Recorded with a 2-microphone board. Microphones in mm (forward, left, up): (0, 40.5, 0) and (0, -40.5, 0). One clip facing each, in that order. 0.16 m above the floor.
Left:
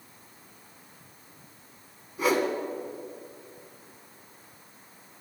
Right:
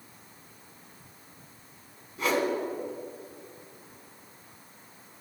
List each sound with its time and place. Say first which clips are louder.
2.2 s a whoosh: left 2 dB; 10° left (ahead or behind), 1.1 m